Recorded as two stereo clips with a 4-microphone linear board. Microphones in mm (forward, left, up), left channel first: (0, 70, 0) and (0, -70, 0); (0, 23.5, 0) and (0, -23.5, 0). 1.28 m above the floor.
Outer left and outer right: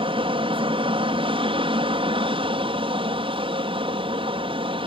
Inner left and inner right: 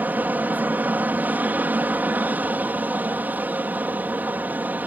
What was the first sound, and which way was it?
An aircraft, 40° right (ahead or behind).